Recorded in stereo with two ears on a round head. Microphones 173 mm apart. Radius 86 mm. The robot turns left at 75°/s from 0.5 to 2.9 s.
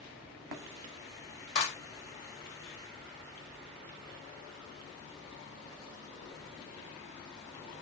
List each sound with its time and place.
1.6 s a clap: 65° left (ahead or behind), 1.6 m; by 1.8 s 45° left (ahead or behind), 1.6 m